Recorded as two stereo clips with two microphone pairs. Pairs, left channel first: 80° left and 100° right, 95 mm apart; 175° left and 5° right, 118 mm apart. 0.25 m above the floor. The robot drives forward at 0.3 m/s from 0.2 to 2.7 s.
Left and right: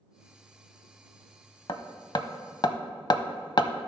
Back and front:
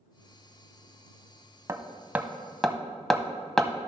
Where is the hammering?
55° left, 0.6 m; by 3.7 s 95° left, 0.5 m.